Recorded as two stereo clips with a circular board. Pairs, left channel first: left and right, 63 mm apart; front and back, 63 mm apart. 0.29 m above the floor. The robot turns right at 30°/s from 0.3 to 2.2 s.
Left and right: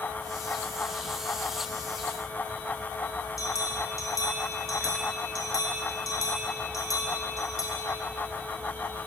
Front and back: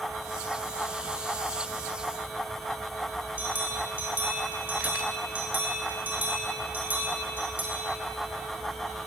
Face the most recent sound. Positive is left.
turn(degrees=120)